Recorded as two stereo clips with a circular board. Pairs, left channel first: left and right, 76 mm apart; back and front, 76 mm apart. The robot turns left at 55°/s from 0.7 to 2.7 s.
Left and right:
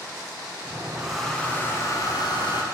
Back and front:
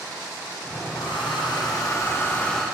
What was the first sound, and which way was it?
A hair dryer, 165° right.